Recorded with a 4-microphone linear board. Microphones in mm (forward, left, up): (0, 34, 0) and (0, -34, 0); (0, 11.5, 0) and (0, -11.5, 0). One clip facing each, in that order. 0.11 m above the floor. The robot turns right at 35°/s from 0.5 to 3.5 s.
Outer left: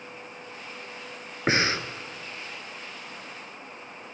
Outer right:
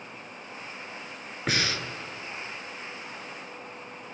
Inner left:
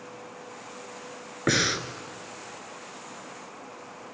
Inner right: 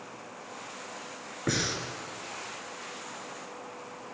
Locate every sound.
1.5 s breathing: 30° left (ahead or behind), 1.3 m